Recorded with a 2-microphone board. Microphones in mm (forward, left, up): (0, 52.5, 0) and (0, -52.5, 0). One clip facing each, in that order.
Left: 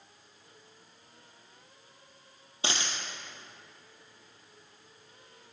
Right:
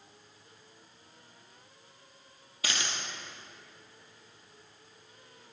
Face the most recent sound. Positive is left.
turn(degrees=30)  # may be behind; listen again after turning